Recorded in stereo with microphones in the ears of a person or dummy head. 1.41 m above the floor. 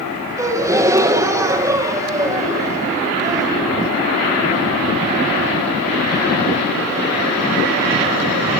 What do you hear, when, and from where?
0.4 s a gasp: 15° right (ahead or behind), 1.3 m